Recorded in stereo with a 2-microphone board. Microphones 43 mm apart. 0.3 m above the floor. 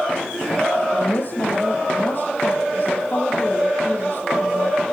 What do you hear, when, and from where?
0.9 s a woman speaking: 45° left (ahead or behind), 10 m